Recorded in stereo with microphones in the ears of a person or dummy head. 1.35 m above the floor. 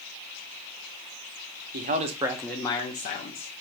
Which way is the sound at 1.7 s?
50° right (ahead or behind).